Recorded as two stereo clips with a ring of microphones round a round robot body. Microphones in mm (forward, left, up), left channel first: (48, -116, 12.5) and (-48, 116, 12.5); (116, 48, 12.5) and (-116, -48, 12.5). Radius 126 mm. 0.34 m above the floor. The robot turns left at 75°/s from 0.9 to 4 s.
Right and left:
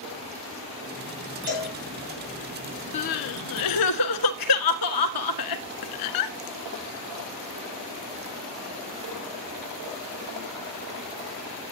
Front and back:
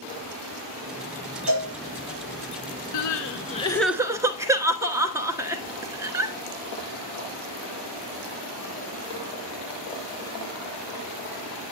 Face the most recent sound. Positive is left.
turn(degrees=-80)